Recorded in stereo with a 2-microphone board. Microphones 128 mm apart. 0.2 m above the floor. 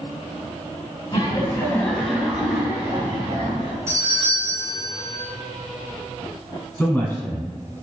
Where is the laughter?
35° left (ahead or behind), 1.1 m; by 3.8 s 40° right (ahead or behind), 1.7 m.